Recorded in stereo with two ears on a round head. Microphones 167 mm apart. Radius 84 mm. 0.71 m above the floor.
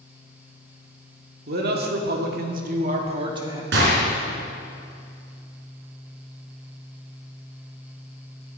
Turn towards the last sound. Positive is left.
turn(degrees=-65)  # may be behind; listen again after turning